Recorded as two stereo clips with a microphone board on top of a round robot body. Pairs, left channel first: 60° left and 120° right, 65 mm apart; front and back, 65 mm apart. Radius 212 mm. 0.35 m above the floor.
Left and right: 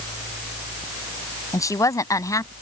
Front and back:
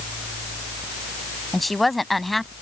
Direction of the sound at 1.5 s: 90° left.